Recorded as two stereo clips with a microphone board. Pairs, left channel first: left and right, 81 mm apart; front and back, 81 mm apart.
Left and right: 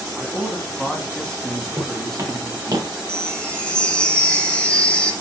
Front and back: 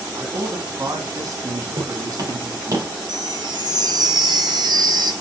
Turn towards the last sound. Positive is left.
turn(degrees=165)